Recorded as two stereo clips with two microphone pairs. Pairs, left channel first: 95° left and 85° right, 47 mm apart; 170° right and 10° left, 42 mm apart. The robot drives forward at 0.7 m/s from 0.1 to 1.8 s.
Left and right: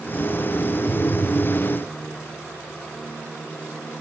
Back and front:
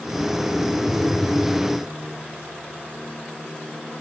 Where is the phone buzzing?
145° left, 2.5 m; by 1.6 s 150° left, 3 m.